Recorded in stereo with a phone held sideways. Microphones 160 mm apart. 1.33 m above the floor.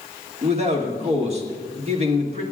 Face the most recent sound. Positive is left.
turn(degrees=-40)  # may be behind; listen again after turning